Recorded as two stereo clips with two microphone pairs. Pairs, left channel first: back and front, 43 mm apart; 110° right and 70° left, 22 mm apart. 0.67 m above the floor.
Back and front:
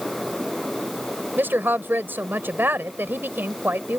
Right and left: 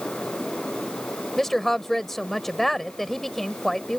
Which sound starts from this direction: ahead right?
A woman speaking, at 1.4 s.